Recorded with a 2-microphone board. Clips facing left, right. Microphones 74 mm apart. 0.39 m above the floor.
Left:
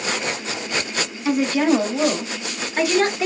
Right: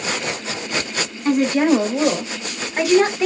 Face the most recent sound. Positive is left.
turn(degrees=-5)  # may be behind; listen again after turning